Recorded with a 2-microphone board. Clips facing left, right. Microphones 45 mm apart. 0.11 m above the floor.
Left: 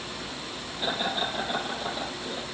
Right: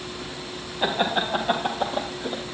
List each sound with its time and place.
0.8 s laughter: 55° right (ahead or behind), 2.5 m; by 2.4 s 65° right (ahead or behind), 3 m